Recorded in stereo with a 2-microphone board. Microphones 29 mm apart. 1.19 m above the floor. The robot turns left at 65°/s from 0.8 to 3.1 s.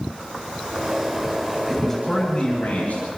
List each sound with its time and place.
1.7 s a man speaking: 170° right, 9 m; by 3.1 s 95° left, 9 m